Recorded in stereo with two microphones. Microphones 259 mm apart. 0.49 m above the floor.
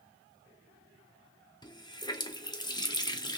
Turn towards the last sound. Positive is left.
turn(degrees=15)  # may be behind; listen again after turning